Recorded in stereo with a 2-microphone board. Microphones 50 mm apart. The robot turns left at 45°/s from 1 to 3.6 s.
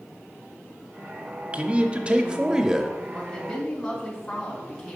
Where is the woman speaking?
15° left (ahead or behind), 2.5 m; by 5.0 s 5° right (ahead or behind), 2.5 m.